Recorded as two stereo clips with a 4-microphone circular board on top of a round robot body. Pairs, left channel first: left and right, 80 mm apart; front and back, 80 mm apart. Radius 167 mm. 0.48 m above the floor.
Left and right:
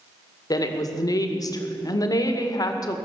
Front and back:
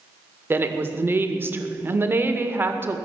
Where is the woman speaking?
120° left, 2 m.